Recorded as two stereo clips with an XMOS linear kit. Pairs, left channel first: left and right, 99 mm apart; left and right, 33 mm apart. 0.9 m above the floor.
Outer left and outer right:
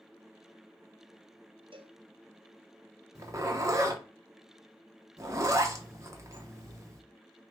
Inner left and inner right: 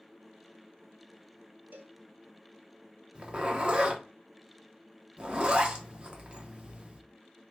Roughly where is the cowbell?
Right.